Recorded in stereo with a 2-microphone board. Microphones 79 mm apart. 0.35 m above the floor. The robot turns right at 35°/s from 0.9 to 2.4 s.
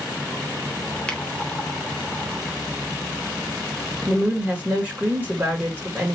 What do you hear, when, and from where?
1.1 s a finger snap: 15° left (ahead or behind), 0.9 m
4.1 s a woman speaking: 20° right (ahead or behind), 1.4 m